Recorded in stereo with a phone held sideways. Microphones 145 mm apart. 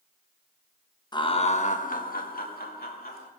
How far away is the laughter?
About 1.0 m.